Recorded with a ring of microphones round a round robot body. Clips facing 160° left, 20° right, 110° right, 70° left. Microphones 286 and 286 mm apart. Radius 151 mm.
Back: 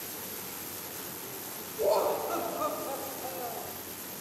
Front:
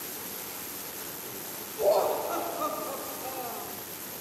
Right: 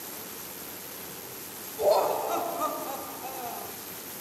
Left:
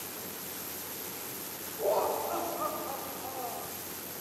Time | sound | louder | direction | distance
1.8 | laughter | front 2 dB, right 5 dB | 120° right | 2.5 m